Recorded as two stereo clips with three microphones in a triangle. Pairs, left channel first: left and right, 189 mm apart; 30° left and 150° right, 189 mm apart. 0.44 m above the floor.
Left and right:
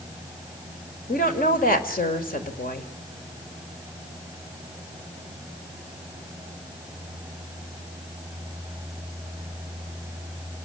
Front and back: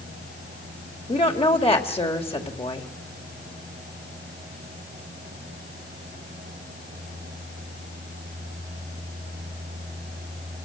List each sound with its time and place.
1.1 s a woman speaking: 80° left, 1.9 m